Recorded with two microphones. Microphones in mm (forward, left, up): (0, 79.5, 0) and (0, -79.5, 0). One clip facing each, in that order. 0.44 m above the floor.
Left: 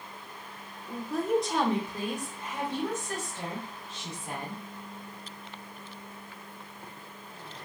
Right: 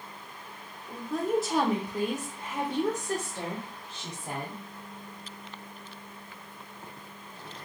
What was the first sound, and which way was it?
A woman speaking, 10° left (ahead or behind).